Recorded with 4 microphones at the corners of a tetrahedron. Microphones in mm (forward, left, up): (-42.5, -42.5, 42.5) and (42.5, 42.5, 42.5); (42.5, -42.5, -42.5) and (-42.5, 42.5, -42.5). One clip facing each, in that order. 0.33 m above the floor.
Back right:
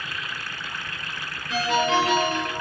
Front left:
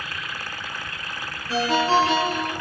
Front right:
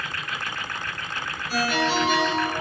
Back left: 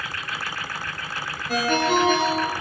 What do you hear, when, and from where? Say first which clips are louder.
1.5 s a ringtone: front left 2 dB, back left 3 dB; 100° left, 3.5 m